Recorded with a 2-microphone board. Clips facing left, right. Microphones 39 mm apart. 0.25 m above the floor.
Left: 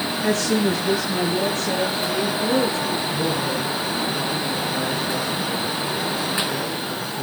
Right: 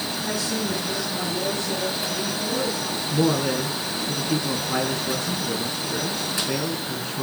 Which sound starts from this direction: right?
A man speaking, at 3.1 s.